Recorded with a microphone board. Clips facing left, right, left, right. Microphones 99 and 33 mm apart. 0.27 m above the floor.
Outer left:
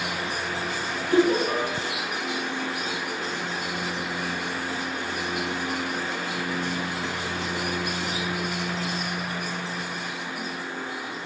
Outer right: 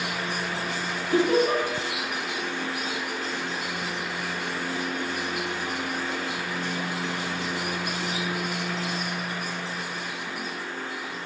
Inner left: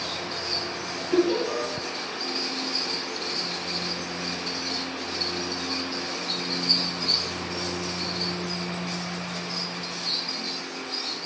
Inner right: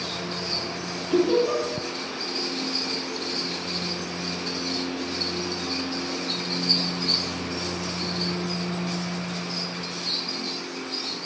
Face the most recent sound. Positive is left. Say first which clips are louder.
# even, inner right 2 dB
turn(degrees=-5)  # may be behind; listen again after turning